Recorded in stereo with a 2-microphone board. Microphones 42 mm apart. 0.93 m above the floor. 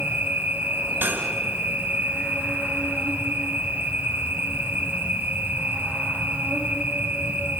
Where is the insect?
65° right (ahead or behind), 5.5 m.